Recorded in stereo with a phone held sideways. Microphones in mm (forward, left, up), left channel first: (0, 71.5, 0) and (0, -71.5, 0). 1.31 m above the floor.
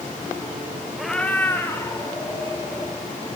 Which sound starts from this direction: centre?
A cat meowing, at 1.0 s.